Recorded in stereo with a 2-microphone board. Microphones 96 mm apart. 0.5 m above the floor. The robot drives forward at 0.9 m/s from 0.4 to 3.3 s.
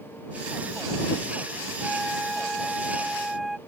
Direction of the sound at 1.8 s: Centre (ahead or behind).